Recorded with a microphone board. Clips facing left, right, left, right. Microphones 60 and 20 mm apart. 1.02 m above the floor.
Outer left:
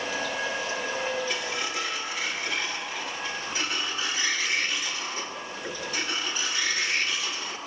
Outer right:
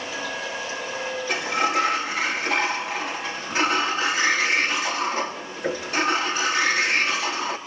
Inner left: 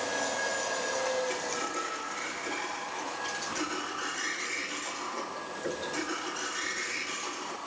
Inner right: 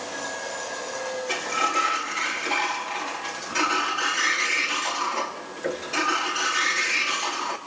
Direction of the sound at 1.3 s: 65° right (ahead or behind).